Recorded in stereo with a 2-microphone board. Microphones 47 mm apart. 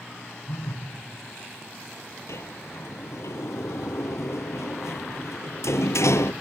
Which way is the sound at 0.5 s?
65° left (ahead or behind).